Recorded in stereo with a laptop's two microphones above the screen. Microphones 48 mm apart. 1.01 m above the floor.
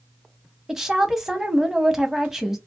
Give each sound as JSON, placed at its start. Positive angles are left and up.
{"t": 0.7, "sound": "a woman speaking", "side_deg": -10, "distance_m": 0.9}